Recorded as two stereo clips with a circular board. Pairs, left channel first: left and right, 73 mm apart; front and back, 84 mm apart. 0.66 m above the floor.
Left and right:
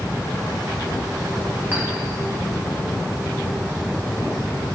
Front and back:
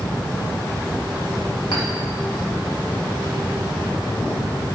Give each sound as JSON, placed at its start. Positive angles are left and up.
{"t": 1.7, "sound": "a clink", "azimuth_deg": -25, "distance_m": 3.5}